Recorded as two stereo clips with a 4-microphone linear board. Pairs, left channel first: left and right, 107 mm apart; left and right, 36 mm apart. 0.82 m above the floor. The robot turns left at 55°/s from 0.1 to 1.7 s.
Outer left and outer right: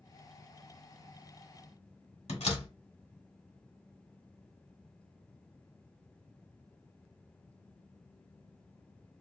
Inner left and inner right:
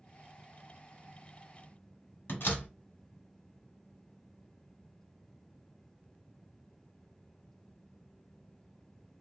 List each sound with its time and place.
2.3 s a door slam: 75° left (ahead or behind), 1.4 m